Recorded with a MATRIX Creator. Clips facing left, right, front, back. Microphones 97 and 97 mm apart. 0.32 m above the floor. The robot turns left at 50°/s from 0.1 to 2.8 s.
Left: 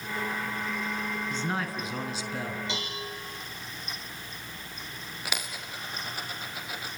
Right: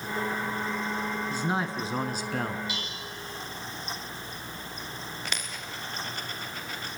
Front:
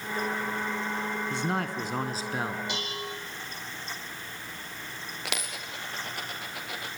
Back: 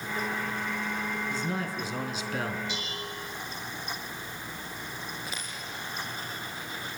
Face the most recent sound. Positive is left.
turn(degrees=10)